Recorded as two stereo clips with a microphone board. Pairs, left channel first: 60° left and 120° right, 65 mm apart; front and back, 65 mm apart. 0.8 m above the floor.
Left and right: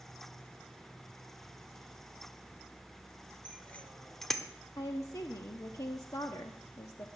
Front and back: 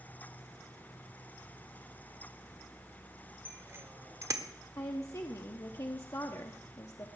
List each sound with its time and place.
3.5 s a bicycle bell: 125° left, 2 m; by 4.5 s 150° left, 1.2 m
4.8 s a woman speaking: 30° left, 1.1 m